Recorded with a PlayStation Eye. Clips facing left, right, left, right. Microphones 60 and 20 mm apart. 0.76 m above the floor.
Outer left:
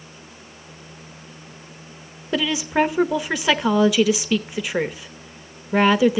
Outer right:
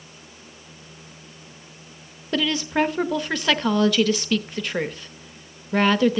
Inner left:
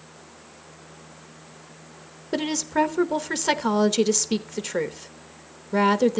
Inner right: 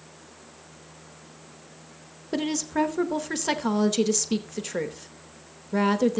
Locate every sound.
2.3 s a woman speaking: 10° left (ahead or behind), 1.0 m